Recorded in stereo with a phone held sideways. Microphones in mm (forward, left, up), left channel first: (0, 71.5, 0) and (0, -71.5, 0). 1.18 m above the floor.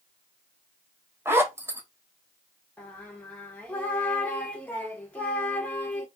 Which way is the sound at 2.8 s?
10° left (ahead or behind).